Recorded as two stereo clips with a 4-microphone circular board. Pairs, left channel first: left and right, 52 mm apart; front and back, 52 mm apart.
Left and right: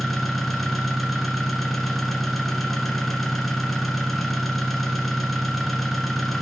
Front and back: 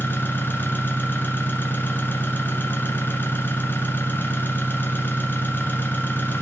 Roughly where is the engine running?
Ahead.